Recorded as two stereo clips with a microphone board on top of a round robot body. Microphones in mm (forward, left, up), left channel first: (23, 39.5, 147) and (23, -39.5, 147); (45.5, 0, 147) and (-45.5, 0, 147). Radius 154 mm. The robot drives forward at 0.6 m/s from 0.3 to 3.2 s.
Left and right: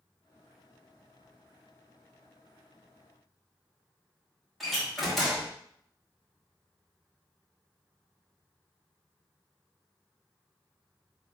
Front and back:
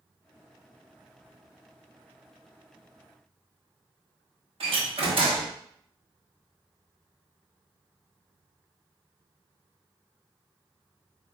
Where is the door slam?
Straight behind, 1.2 m.